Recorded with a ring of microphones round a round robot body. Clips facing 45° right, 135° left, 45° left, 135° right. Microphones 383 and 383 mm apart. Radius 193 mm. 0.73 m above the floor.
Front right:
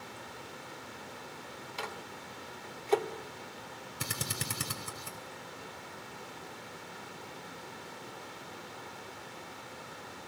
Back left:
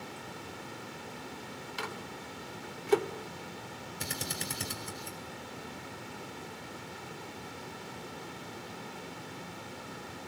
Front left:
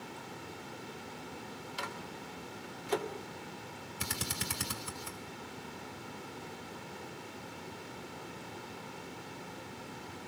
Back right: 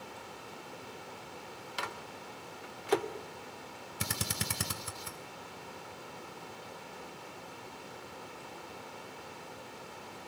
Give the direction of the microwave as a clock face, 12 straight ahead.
5 o'clock.